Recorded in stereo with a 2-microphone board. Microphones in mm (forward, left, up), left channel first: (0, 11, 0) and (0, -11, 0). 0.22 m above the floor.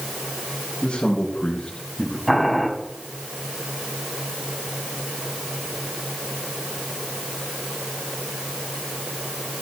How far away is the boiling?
About 2.0 m.